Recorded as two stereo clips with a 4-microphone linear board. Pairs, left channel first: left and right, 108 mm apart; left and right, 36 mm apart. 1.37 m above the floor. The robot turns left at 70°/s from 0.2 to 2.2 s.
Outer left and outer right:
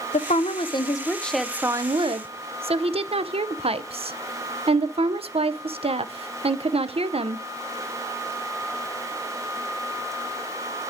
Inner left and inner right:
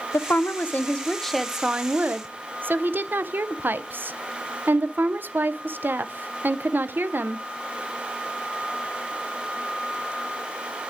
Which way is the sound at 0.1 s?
80° left.